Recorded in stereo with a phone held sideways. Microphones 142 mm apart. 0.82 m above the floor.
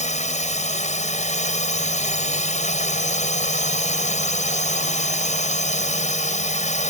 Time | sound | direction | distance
0.0 | a drone | 55° left (ahead or behind) | ?